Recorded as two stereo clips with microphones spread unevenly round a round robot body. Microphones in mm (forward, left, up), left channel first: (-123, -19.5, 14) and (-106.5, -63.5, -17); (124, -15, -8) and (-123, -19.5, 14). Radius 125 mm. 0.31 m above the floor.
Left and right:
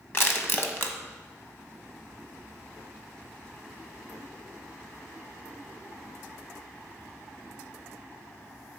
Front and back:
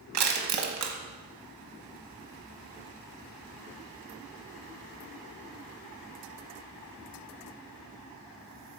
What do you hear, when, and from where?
0.1 s crushing: 170° left, 1.2 m